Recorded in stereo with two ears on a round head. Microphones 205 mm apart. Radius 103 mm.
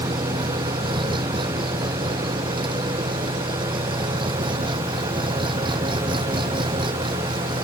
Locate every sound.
0.0 s an engine running: 20° right (ahead or behind)